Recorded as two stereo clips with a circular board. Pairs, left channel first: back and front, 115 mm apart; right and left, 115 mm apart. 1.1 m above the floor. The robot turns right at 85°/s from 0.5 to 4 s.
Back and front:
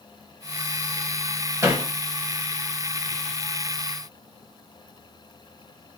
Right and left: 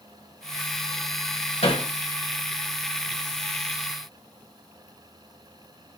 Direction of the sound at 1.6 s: 65° right.